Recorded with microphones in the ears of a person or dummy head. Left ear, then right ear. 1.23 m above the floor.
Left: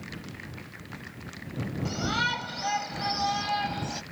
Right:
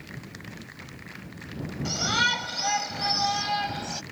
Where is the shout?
25° right (ahead or behind); by 4.0 s 5° right (ahead or behind).